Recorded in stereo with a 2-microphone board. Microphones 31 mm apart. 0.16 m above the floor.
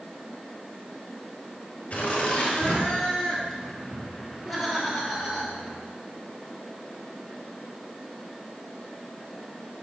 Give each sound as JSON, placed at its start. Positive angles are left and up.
{"t": 1.9, "sound": "laughter", "side_deg": 40, "distance_m": 4.0}